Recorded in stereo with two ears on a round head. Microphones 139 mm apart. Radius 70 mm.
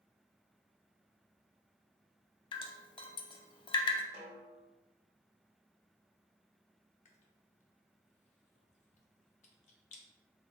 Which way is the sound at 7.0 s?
45° left (ahead or behind).